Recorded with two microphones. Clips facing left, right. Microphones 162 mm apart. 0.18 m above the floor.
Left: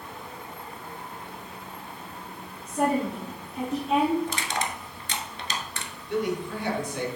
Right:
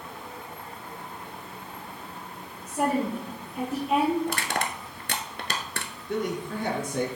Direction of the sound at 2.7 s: 5° right (ahead or behind).